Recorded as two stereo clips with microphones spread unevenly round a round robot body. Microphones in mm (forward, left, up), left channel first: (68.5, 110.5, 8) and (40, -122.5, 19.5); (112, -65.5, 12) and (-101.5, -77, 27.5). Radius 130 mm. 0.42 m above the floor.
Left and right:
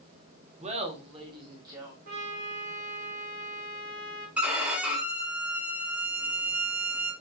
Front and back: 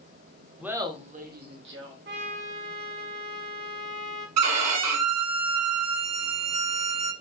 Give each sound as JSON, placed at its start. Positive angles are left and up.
{"t": 0.6, "sound": "laughter", "azimuth_deg": -85, "distance_m": 0.8}
{"t": 2.0, "sound": "a trumpet", "azimuth_deg": -150, "distance_m": 1.9}
{"t": 4.4, "sound": "a violin", "azimuth_deg": 180, "distance_m": 0.6}